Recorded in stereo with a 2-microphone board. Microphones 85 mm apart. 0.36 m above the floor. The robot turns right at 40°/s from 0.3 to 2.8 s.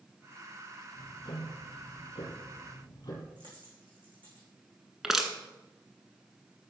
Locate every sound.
1.0 s ticking: 55° left, 4 m; by 3.3 s 130° left, 4 m
3.4 s a dropped coin: 75° right (ahead or behind), 6 m
5.0 s crushing: 5° right (ahead or behind), 1.3 m